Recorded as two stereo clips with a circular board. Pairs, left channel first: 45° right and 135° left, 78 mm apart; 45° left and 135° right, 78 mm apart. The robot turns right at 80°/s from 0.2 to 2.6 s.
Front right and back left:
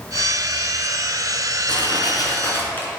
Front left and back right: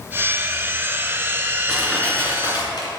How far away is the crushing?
About 3 m.